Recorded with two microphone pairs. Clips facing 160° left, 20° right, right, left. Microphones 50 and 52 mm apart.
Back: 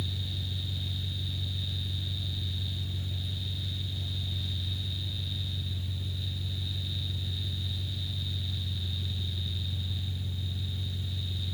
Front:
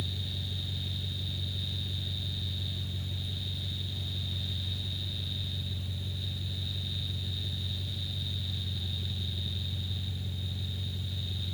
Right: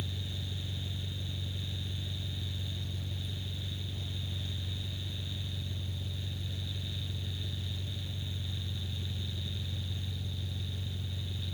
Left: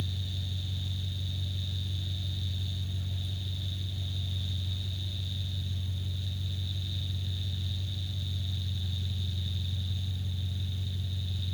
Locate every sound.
0.0 s an engine running: 110° right, 1.2 m